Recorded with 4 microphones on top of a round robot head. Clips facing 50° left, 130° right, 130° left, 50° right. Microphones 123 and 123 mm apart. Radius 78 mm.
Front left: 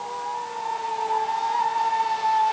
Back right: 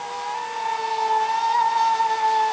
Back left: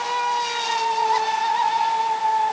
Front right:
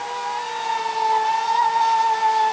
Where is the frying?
No frying in this recording.